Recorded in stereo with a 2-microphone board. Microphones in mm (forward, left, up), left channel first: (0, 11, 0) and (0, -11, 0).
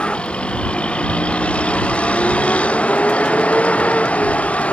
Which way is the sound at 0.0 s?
65° left (ahead or behind).